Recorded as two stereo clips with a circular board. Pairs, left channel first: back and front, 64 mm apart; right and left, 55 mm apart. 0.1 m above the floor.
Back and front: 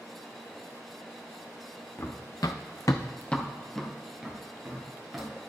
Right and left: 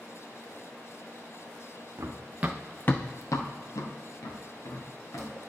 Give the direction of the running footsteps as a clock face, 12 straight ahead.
8 o'clock.